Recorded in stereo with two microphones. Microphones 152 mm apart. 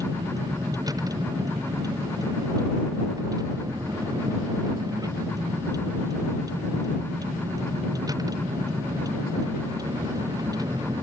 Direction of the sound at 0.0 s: 25° right (ahead or behind).